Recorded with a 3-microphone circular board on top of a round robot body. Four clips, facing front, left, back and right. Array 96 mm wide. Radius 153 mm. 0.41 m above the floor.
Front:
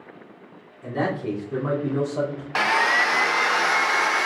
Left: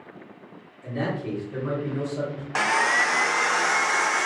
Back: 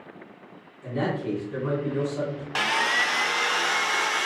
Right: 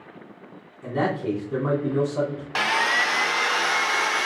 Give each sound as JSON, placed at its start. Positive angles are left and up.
{"t": 0.8, "sound": "a man speaking", "azimuth_deg": -70, "distance_m": 4.5}
{"t": 2.5, "sound": "sawing", "azimuth_deg": 15, "distance_m": 0.6}